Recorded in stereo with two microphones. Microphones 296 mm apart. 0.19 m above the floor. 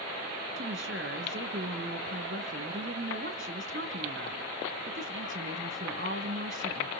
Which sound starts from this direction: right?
A woman speaking, at 0.6 s.